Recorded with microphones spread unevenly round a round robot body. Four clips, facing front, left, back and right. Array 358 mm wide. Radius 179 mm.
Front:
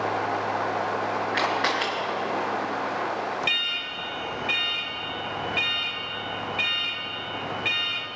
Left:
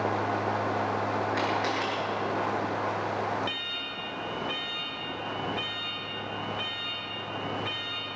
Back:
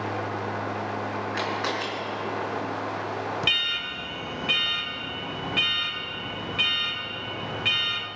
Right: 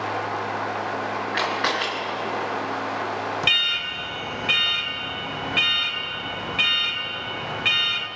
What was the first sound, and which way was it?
A camera shutter, 60° right.